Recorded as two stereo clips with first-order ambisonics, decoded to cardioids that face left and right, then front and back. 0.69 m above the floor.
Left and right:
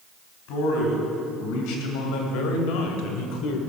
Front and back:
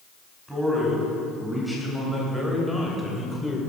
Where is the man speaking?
100° left, 3.5 m; by 3.6 s 80° left, 1.8 m.